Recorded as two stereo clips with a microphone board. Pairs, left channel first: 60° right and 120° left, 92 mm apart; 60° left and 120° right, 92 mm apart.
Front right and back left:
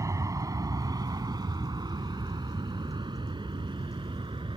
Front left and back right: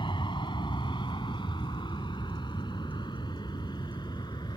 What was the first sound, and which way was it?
An aircraft, 75° left.